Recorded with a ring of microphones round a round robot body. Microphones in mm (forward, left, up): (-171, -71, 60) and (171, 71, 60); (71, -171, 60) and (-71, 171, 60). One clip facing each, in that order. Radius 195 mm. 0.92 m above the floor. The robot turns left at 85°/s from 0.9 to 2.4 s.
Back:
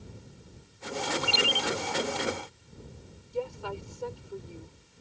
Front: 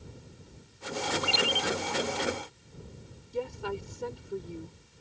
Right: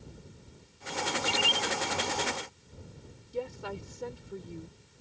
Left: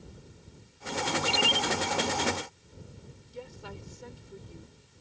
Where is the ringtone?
165° right; by 1.7 s 155° left.